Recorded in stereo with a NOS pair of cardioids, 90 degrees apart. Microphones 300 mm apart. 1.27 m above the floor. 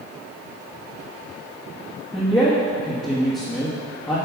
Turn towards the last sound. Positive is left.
turn(degrees=10)